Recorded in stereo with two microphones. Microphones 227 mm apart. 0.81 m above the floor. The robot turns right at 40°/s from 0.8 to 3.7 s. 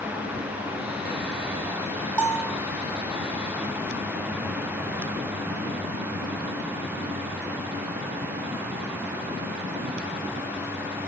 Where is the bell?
10° left (ahead or behind), 1.0 m; by 2.6 s 5° right (ahead or behind), 1.0 m.